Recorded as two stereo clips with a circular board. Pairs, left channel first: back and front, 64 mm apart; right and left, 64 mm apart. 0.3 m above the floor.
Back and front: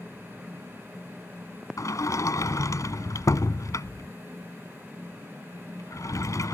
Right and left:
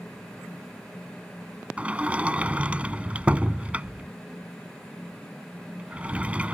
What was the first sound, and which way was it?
A sliding door, 160° left.